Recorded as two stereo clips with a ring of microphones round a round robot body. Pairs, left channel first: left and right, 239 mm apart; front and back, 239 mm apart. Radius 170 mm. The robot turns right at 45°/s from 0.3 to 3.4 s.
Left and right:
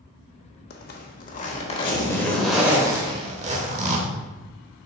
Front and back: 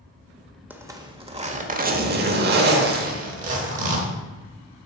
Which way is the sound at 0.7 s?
100° left.